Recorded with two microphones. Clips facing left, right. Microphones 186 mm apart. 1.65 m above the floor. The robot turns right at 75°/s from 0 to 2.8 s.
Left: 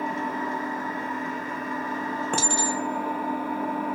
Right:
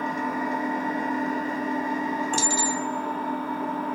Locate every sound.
0.0 s an engine running: 165° left, 1.3 m; by 4.0 s 15° left, 1.3 m
2.3 s a clink: 65° left (ahead or behind), 1.6 m; by 4.0 s 60° left (ahead or behind), 1.6 m